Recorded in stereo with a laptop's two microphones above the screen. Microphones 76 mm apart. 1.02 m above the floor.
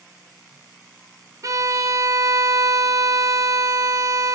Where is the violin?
45° right (ahead or behind), 0.5 m.